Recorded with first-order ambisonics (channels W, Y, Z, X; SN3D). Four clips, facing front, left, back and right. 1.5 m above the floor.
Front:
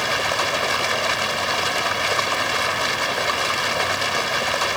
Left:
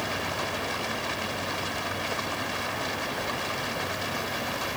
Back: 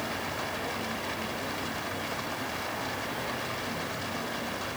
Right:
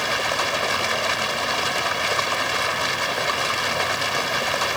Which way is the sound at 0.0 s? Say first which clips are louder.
Right 8 dB, front 12 dB; 35° right.